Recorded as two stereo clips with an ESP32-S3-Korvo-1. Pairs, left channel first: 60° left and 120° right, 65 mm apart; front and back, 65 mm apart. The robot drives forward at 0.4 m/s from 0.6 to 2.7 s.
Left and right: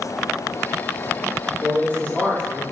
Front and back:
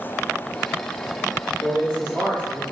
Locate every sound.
1.6 s a man speaking: 10° left, 1.0 m; by 2.6 s 30° left, 0.7 m